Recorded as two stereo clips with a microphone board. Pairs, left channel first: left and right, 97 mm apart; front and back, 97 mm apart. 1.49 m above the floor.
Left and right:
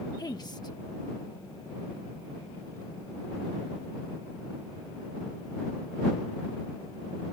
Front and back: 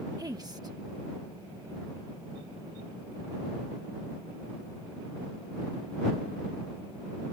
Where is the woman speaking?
135° left.